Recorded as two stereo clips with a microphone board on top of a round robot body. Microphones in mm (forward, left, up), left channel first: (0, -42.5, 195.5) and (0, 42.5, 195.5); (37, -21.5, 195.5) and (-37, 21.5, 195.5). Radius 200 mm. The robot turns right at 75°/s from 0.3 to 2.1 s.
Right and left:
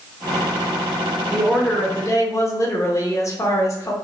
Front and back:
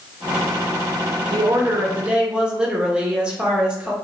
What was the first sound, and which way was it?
A woman speaking, 165° left.